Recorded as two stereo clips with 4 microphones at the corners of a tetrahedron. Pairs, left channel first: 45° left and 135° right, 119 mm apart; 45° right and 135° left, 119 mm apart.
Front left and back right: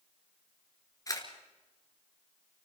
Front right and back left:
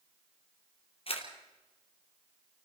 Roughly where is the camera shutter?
Ahead.